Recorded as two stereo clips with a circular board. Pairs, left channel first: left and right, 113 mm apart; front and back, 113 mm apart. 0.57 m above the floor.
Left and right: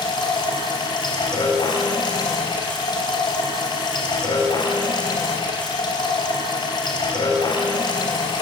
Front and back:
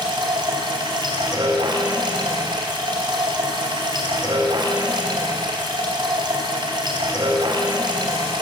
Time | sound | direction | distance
0.0 | running water | 135° left | 3.5 m